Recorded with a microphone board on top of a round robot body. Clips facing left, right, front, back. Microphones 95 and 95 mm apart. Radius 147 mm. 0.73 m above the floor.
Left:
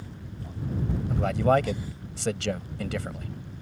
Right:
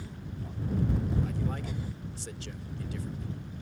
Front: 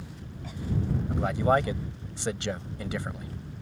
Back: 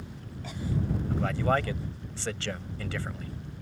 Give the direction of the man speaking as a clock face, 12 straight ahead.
10 o'clock.